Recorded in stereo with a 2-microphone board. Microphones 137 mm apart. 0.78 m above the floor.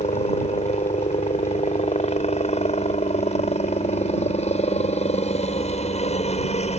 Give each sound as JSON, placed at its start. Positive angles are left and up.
{"t": 0.0, "sound": "a helicopter", "side_deg": 50}